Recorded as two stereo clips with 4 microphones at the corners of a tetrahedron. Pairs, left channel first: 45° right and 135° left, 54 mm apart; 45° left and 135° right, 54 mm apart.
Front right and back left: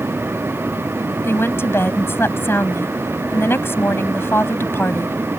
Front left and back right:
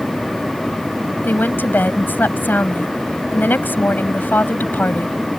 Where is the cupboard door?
No cupboard door in this recording.